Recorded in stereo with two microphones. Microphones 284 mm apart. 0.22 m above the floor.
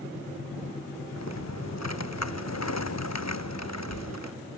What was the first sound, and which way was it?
Typing on a keyboard, 65° left (ahead or behind).